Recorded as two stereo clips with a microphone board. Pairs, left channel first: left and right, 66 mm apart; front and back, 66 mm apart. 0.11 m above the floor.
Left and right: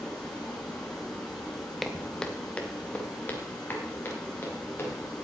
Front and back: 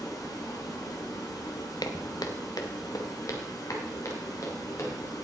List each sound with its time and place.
0.0 s running water: 15° left, 8.5 m
1.8 s footsteps: straight ahead, 1.5 m; by 4.9 s 35° left, 5.5 m